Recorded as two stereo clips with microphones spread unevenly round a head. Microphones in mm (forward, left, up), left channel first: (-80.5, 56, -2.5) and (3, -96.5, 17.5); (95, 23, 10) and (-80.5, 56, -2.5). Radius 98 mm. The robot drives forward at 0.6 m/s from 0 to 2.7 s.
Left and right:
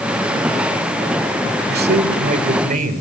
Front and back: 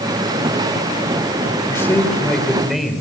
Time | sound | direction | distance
1.7 | a man speaking | 85° right | 2.5 m